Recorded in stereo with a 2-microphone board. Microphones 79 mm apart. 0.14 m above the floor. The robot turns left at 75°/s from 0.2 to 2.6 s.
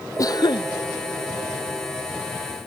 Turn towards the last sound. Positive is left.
turn(degrees=-50)